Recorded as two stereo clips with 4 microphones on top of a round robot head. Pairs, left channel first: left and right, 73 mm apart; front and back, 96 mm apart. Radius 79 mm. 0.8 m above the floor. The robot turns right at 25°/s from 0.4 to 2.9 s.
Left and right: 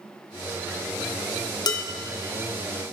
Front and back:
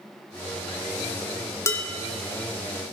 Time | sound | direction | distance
1.7 | dishes clattering | 65° left | 1.1 m